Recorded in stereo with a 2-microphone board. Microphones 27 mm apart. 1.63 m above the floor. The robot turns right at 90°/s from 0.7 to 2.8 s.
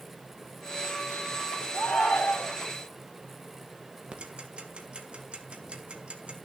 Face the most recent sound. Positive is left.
turn(degrees=-40)  # may be behind; listen again after turning